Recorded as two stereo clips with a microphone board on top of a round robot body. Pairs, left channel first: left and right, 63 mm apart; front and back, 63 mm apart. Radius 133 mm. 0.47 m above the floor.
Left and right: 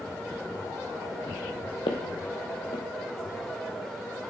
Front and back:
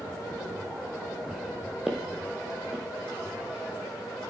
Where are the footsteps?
100° left, 0.8 m.